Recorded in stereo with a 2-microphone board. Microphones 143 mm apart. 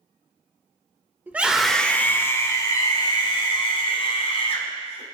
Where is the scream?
15° right (ahead or behind), 1.7 m; by 5.0 s 45° left (ahead or behind), 5.5 m.